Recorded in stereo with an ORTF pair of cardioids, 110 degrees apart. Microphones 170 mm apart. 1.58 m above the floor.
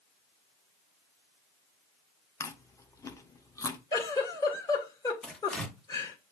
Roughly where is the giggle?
Ahead left.